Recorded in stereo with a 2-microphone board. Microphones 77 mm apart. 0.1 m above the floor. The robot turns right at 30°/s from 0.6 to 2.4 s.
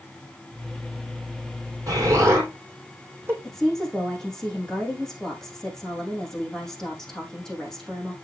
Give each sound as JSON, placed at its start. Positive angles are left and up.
{"t": 1.9, "sound": "an explosion", "side_deg": -45, "distance_m": 4.0}
{"t": 3.4, "sound": "a woman speaking", "side_deg": 10, "distance_m": 4.0}